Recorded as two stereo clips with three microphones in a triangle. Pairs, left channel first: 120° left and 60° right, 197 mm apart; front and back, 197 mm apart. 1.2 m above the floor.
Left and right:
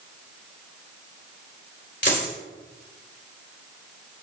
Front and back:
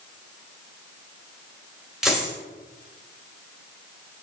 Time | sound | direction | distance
2.0 | a dropped coin | 90° left | 2.5 m